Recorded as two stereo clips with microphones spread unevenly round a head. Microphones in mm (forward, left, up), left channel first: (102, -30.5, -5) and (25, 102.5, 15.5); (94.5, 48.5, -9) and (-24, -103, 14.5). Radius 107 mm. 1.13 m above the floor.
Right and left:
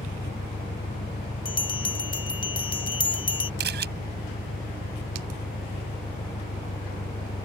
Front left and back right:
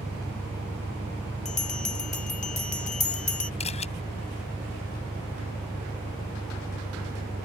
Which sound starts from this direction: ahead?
A bell, at 1.4 s.